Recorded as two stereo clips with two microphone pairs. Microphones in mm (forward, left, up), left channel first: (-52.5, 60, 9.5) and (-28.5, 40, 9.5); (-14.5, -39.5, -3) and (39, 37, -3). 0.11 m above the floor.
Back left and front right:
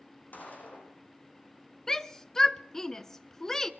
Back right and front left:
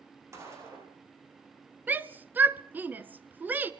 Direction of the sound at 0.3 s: 115° left.